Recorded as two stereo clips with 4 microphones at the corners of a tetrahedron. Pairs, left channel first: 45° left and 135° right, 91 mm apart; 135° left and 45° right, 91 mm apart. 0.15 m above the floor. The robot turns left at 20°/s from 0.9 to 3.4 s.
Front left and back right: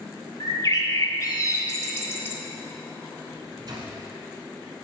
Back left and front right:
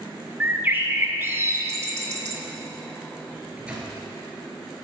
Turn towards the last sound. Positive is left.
turn(degrees=-120)